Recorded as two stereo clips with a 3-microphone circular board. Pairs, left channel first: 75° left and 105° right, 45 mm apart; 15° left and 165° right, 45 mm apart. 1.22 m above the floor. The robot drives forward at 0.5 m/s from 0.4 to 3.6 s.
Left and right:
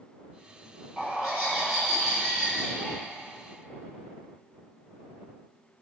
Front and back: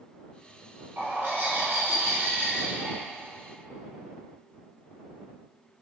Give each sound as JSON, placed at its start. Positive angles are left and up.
{"t": 1.0, "sound": "a bird", "azimuth_deg": 180, "distance_m": 1.7}